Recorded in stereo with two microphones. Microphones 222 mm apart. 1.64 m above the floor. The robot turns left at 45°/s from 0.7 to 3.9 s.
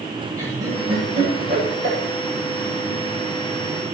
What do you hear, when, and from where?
0.4 s laughter: 15° right (ahead or behind), 9.5 m; by 2.0 s 75° right (ahead or behind), 9.5 m